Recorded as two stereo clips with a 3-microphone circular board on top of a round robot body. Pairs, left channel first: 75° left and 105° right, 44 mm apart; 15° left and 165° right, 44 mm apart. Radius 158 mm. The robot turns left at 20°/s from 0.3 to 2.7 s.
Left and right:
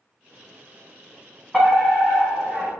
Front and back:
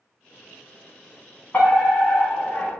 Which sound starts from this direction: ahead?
A fire alarm, at 1.5 s.